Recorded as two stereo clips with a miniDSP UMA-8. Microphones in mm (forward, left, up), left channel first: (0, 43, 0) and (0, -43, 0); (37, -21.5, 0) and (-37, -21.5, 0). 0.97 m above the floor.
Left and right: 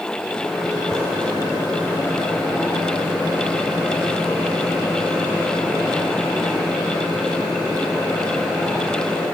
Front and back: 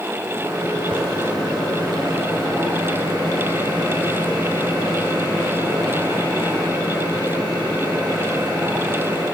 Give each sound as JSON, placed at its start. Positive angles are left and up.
{"t": 0.2, "sound": "a microwave", "azimuth_deg": 170, "distance_m": 4.0}